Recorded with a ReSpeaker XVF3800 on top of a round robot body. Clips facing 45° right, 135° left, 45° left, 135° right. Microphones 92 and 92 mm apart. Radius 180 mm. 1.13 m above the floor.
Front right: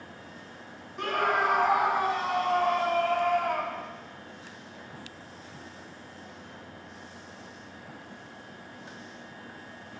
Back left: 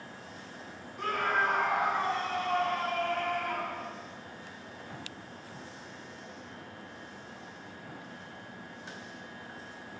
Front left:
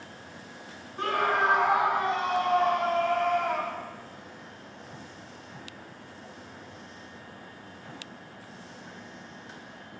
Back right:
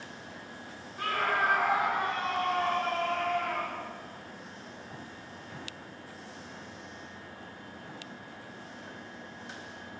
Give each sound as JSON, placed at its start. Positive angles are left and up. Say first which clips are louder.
{"t": 1.0, "sound": "a scream", "louder": "front right 3 dB, front left 4 dB", "azimuth_deg": -20, "distance_m": 2.5}